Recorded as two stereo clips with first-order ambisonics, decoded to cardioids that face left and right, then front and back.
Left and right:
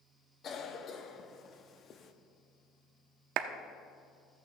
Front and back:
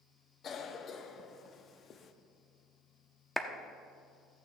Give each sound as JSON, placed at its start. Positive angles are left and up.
{"t": 0.4, "sound": "a cough", "azimuth_deg": 45, "distance_m": 0.7}
{"t": 3.4, "sound": "a clap", "azimuth_deg": -85, "distance_m": 0.6}